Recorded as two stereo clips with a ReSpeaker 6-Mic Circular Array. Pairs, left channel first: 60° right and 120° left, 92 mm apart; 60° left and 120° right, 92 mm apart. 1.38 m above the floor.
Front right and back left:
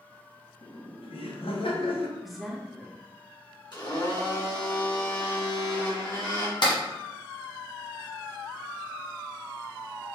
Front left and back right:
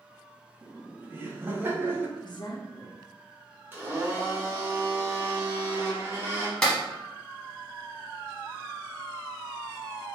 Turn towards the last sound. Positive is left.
turn(degrees=-25)